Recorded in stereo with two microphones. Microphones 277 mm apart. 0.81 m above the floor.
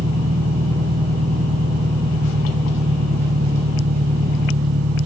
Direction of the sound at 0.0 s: 60° right (ahead or behind).